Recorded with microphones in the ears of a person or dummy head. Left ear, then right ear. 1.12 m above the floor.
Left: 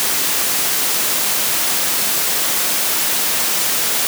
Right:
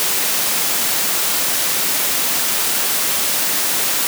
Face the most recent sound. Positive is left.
No sound to turn to.